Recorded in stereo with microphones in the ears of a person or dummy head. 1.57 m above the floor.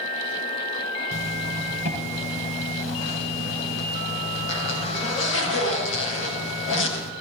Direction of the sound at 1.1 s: 65° left (ahead or behind).